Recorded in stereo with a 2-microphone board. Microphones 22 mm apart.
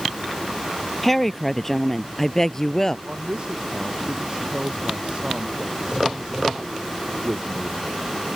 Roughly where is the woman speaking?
Centre.